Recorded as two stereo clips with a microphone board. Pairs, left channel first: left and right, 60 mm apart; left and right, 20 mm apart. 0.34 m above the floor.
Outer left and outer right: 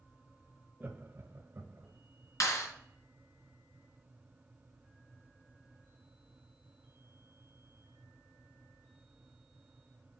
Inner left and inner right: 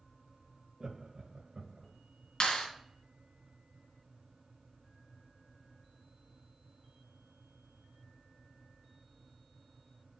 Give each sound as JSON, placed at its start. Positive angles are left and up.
{"t": 0.8, "sound": "laughter", "side_deg": -25, "distance_m": 1.0}
{"t": 2.4, "sound": "a clap", "side_deg": 60, "distance_m": 2.5}